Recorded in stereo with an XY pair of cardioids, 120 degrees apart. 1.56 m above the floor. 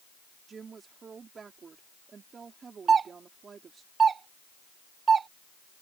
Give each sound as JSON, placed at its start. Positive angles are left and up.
{"t": 0.5, "sound": "a woman speaking", "azimuth_deg": -35}
{"t": 2.9, "sound": "a doorbell", "azimuth_deg": -40}